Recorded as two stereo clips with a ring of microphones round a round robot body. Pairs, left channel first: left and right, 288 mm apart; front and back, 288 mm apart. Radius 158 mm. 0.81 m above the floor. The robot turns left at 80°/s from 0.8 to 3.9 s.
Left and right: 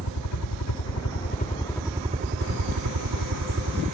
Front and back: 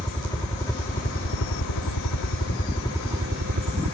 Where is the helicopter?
75° left; by 3.9 s 160° right.